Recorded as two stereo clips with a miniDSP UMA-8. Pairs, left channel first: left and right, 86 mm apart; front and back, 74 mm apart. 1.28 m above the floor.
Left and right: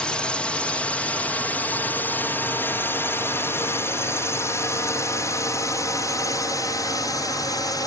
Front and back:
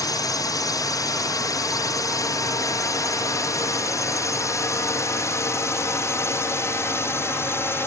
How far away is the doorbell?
No doorbell in this recording.